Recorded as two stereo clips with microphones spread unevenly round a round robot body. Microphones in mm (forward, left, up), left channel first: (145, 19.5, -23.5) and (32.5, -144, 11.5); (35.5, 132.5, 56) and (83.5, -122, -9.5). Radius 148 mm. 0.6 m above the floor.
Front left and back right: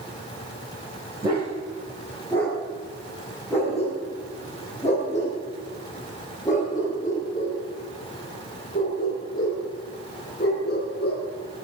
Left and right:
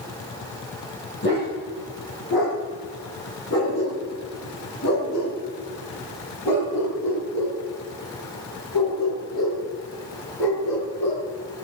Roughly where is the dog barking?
Behind left.